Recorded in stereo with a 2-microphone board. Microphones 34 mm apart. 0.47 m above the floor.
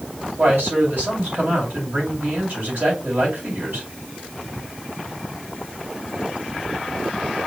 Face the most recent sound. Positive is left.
turn(degrees=-65)  # may be behind; listen again after turning